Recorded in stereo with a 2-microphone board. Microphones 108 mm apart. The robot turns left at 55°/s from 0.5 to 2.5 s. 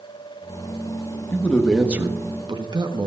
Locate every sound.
1.3 s a man speaking: 20° left, 1.3 m; by 3.1 s 45° right, 1.3 m